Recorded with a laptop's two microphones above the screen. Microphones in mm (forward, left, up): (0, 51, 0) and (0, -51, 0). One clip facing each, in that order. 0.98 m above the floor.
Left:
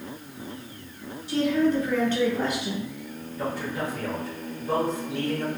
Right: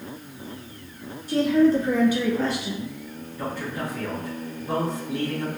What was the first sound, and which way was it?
A woman speaking, 45° right (ahead or behind).